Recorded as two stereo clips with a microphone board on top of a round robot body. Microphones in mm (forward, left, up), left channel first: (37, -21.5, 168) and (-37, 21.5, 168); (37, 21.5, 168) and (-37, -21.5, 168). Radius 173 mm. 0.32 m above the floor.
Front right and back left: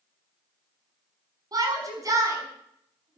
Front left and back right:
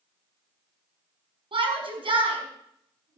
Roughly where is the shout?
Behind.